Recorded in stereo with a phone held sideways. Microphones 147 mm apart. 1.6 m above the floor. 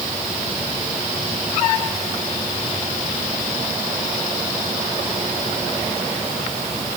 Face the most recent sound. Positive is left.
No sound to turn to.